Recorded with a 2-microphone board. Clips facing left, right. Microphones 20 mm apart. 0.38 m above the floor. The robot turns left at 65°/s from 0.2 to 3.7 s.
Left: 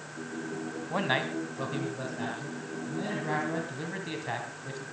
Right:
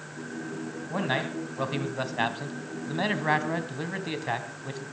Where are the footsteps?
No footsteps in this recording.